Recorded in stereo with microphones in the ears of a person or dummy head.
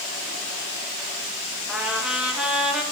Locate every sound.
1.7 s a trumpet: 10° right (ahead or behind), 1.8 m